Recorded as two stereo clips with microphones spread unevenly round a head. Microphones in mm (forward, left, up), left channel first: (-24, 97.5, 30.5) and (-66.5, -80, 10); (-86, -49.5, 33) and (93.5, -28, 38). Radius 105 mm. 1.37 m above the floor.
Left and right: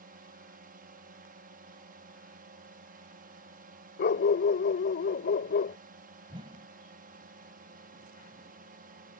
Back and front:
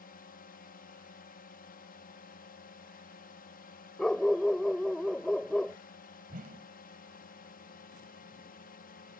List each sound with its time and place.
0.0 s a drone: 140° right
4.0 s a dog barking: 100° left
6.3 s a whoosh: 35° right